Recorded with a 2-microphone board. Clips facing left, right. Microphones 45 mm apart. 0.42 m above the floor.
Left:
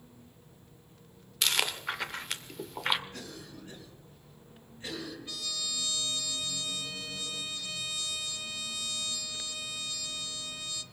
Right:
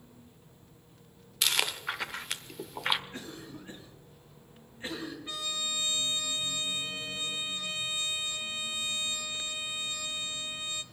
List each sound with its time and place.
1.4 s chewing: centre (ahead or behind), 1.0 m
3.1 s a cough: 30° right (ahead or behind), 5 m
5.3 s a trumpet: 30° right (ahead or behind), 0.8 m